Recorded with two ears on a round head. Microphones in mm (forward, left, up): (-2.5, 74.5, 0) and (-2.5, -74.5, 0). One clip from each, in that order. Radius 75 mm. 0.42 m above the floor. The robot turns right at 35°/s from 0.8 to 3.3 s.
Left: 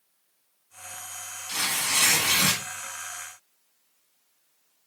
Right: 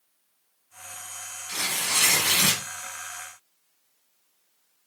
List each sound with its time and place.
1.5 s tearing paper: 160° left, 1.0 m; by 2.6 s 160° right, 1.0 m